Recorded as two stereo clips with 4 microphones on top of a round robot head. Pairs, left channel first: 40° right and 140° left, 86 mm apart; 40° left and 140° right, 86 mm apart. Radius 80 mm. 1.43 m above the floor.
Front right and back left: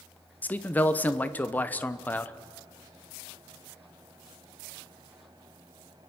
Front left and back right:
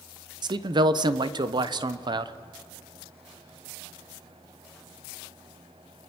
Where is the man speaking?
110° right, 1.0 m.